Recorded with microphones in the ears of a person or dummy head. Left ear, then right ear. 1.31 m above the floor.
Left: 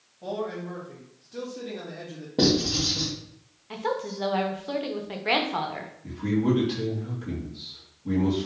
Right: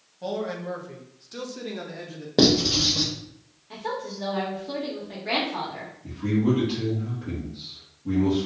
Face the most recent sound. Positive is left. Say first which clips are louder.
# right 1 dB
turn(degrees=5)  # may be behind; listen again after turning